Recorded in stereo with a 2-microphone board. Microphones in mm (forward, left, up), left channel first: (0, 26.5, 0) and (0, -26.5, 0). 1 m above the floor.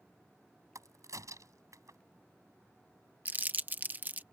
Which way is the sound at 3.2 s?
35° right (ahead or behind).